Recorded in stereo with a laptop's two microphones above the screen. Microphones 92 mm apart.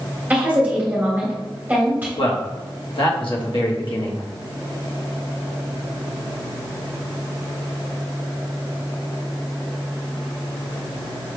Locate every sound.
0.3 s a woman speaking: 20° right (ahead or behind), 1.6 m
2.2 s a man speaking: 65° left (ahead or behind), 1.0 m